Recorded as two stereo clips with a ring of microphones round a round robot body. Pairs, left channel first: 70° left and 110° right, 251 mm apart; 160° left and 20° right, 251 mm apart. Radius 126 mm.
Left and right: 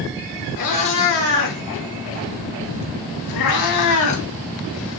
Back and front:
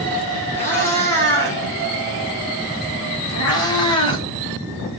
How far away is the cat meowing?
About 4.5 m.